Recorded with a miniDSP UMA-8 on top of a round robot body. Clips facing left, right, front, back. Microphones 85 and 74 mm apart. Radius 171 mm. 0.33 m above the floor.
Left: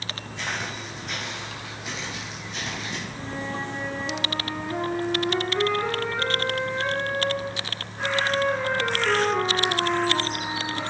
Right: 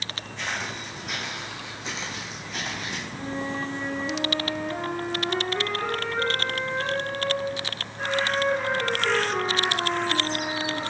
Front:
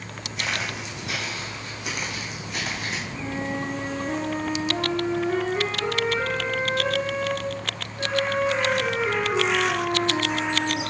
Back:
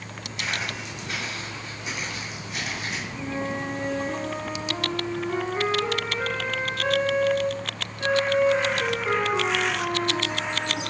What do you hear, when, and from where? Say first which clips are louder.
0.4 s footsteps: even, front 1 dB; 15° left, 1.9 m; by 3.0 s 55° right, 2 m
3.1 s a flute: right 3 dB, even; 25° right, 3 m